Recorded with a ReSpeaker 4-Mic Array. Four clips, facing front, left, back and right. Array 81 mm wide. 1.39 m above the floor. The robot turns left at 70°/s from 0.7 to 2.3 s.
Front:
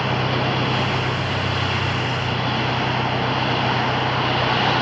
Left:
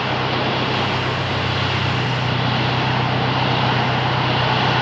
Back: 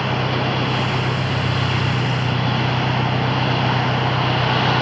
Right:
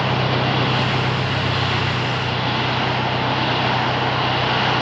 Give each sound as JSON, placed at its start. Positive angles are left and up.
{"t": 0.0, "sound": "an engine running", "azimuth_deg": -100}